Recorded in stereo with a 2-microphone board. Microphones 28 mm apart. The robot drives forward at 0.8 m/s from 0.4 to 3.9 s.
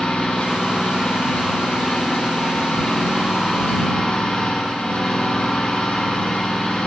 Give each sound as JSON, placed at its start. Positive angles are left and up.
{"t": 0.0, "sound": "an engine running", "side_deg": 85, "distance_m": 4.5}